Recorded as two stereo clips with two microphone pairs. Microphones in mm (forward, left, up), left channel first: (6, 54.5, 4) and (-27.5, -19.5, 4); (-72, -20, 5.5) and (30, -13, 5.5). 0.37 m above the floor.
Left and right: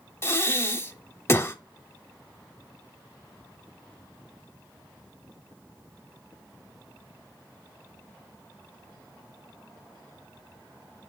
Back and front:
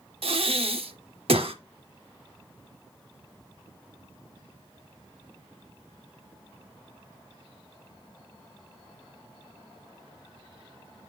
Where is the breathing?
10° left, 0.6 m.